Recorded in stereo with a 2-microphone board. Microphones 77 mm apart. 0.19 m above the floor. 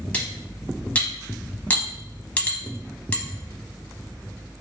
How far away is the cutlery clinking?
About 0.6 m.